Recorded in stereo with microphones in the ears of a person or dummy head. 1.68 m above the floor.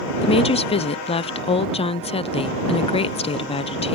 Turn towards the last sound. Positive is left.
turn(degrees=30)  # may be behind; listen again after turning